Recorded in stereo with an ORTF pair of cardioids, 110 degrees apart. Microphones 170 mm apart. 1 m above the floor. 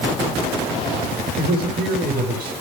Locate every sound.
1.4 s a man speaking: 65° right, 4 m